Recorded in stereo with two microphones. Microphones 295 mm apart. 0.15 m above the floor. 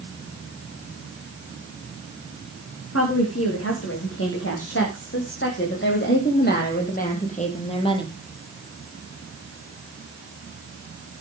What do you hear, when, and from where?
2.9 s a woman speaking: 50° left (ahead or behind), 9 m; by 8.2 s 15° left (ahead or behind), 4 m